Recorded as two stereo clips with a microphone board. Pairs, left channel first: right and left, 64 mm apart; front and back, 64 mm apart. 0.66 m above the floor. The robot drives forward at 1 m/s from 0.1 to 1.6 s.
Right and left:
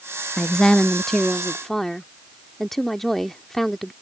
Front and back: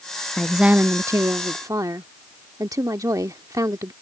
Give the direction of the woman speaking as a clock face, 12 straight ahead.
1 o'clock.